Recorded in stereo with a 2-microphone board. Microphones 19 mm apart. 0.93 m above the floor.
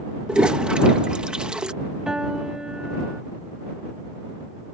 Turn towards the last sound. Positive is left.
turn(degrees=-40)  # may be behind; listen again after turning